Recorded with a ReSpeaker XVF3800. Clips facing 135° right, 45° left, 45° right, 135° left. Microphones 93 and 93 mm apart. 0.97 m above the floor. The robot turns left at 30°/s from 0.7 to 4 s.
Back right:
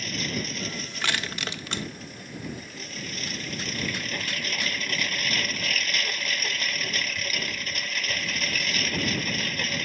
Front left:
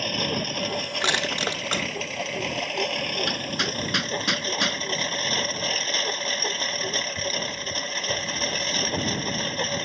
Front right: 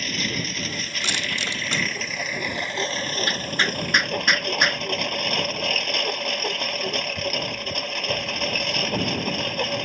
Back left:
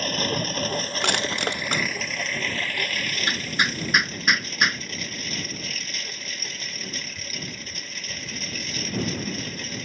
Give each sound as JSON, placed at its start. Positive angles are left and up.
{"t": 0.0, "sound": "a lawn mower", "azimuth_deg": 85}
{"t": 1.0, "sound": "crushing", "azimuth_deg": 110}
{"t": 3.3, "sound": "hammering", "azimuth_deg": 65}